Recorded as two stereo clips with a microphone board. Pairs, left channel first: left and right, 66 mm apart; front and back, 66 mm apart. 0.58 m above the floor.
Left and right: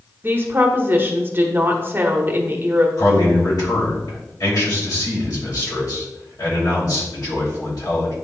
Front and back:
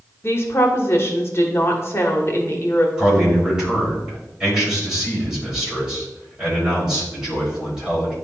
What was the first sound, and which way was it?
A woman speaking, 40° right.